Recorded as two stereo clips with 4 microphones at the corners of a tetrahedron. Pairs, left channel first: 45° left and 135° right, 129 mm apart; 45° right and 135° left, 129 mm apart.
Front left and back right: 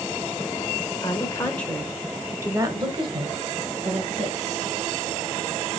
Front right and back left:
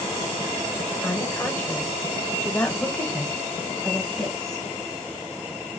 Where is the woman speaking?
20° left, 1.0 m; by 4.7 s 130° right, 1.9 m.